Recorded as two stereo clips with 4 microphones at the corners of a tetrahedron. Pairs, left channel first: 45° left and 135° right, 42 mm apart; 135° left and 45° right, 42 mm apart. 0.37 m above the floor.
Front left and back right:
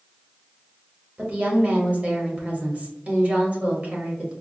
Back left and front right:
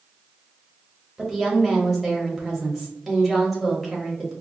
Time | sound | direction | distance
1.2 | a woman speaking | 135° right | 1.1 m